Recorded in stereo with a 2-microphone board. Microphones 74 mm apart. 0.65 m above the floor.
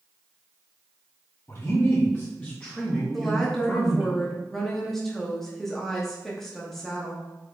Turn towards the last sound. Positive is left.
turn(degrees=5)  # may be behind; listen again after turning